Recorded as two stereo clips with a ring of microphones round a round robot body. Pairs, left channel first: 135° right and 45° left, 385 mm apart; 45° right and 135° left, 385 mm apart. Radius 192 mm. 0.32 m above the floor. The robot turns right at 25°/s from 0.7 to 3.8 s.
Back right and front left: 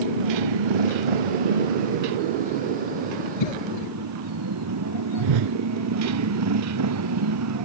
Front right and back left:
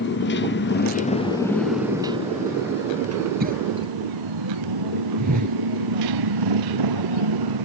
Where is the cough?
155° right; by 3.9 s 145° right.